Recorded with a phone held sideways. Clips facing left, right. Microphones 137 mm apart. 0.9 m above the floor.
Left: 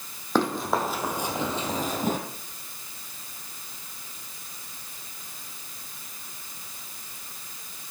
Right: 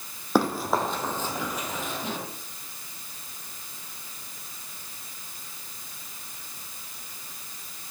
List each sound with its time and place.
0.3 s running footsteps: 10° right (ahead or behind), 2.5 m; by 2.2 s 50° left (ahead or behind), 2 m